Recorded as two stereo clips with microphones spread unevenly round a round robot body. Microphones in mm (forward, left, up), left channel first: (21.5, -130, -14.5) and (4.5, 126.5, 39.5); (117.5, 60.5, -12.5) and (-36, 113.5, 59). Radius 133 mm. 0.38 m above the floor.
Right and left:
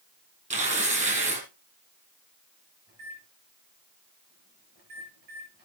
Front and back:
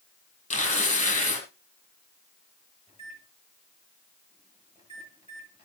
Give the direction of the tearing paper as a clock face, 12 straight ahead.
11 o'clock.